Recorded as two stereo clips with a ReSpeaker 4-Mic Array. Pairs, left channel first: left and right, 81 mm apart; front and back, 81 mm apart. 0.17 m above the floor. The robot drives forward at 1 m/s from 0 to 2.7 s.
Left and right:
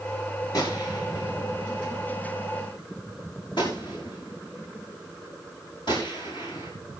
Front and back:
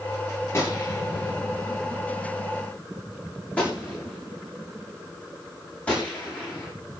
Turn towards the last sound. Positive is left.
turn(degrees=75)